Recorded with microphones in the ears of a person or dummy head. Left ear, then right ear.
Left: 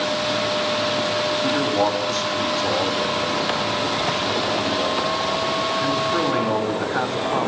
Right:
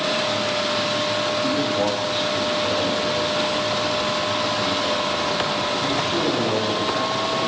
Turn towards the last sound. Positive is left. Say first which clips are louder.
# left 1 dB
turn(degrees=45)  # may be behind; listen again after turning